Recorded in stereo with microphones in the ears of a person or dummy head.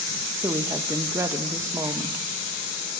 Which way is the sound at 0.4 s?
15° right (ahead or behind).